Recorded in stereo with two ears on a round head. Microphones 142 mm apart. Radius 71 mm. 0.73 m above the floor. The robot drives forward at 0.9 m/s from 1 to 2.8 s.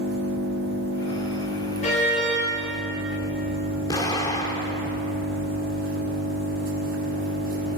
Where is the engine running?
85° right, 4 m; by 7.8 s 65° right (ahead or behind), 4.5 m.